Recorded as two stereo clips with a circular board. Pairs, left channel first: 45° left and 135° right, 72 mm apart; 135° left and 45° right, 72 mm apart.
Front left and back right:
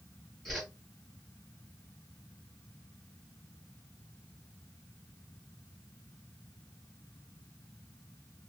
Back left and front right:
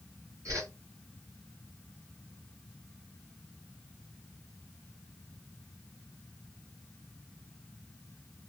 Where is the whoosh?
45° right, 1.6 m.